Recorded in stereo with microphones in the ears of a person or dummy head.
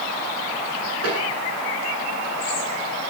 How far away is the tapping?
About 9.5 m.